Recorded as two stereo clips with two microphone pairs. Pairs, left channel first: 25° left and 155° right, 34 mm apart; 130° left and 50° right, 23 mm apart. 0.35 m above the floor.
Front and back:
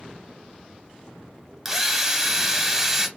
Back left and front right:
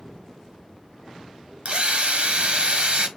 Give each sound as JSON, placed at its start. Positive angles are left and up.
{"t": 1.6, "sound": "a drill", "azimuth_deg": -75, "distance_m": 0.9}